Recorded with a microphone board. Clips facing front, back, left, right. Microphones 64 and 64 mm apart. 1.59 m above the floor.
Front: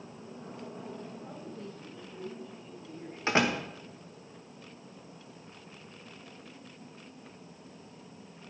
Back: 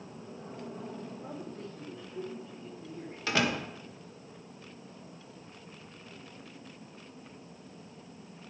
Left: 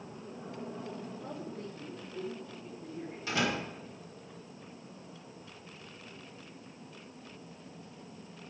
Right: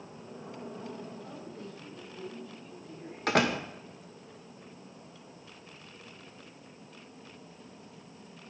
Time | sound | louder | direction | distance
1.2 | a man speaking | back 1 dB, left 2 dB | 135° left | 4 m
3.3 | a door slam | front 2 dB, right 5 dB | 60° right | 1.7 m